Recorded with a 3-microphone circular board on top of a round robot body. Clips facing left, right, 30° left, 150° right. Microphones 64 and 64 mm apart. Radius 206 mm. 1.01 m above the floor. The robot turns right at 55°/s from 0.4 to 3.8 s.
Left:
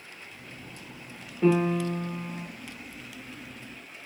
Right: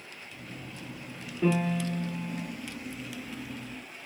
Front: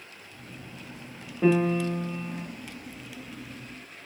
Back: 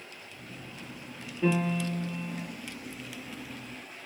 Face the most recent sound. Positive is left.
turn(degrees=125)